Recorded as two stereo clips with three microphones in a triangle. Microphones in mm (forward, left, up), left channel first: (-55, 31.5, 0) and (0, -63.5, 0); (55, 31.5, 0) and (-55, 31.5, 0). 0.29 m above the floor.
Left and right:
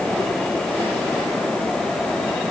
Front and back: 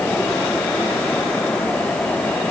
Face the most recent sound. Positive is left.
No sound to turn to.